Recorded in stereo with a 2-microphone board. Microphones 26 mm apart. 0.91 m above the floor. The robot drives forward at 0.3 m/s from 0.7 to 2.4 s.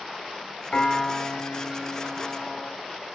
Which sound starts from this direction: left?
A piano, at 0.7 s.